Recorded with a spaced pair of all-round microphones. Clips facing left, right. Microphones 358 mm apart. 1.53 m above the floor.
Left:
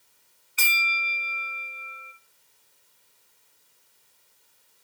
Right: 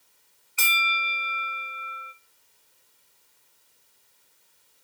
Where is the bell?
30° left (ahead or behind), 1.9 m.